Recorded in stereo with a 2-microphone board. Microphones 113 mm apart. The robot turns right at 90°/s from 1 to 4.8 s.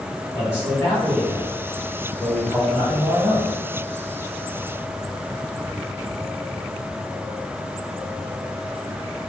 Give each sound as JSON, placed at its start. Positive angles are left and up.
{"t": 0.3, "sound": "a man speaking", "azimuth_deg": 50, "distance_m": 1.5}